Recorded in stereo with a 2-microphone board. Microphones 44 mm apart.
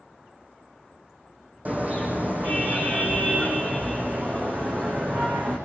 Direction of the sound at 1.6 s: 40° right (ahead or behind).